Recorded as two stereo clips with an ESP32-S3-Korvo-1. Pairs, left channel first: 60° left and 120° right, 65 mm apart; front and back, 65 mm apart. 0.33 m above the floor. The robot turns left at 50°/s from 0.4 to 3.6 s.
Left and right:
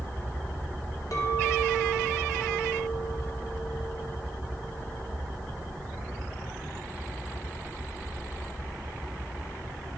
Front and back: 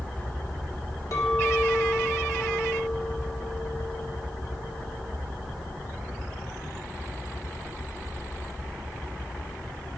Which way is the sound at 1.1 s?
30° left.